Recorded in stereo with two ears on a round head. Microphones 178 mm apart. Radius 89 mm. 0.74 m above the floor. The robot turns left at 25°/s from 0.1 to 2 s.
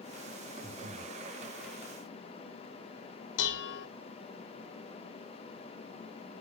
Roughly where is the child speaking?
I don't hear a child speaking.